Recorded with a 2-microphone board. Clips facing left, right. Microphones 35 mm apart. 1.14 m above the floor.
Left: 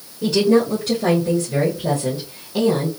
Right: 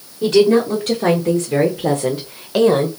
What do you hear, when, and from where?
0.2 s a woman speaking: 55° right (ahead or behind), 2 m; by 2.9 s 65° right (ahead or behind), 0.9 m